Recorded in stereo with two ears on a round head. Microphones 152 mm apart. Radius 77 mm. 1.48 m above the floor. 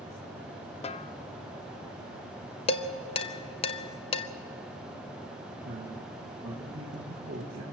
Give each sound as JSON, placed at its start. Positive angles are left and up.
{"t": 0.8, "sound": "a snare drum", "side_deg": 35, "distance_m": 0.5}
{"t": 2.7, "sound": "dishes clattering", "side_deg": 30, "distance_m": 0.8}
{"t": 5.7, "sound": "a man speaking", "side_deg": -70, "distance_m": 1.9}